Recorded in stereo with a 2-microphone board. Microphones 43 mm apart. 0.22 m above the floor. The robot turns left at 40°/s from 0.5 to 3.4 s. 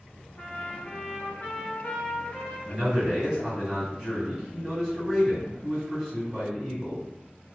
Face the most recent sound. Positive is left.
turn(degrees=-10)  # may be behind; listen again after turning